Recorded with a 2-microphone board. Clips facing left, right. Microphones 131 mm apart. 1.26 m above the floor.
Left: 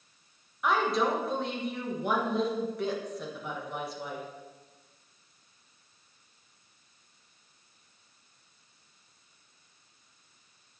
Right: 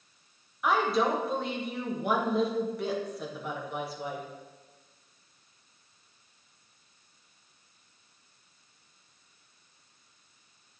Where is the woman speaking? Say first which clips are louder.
Right 1 dB; centre (ahead or behind), 1.3 m.